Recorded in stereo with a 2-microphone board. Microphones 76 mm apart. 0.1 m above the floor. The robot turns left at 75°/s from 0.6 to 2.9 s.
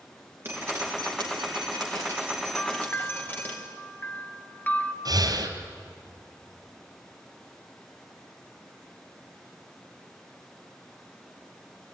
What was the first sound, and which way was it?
Dripping, 30° right.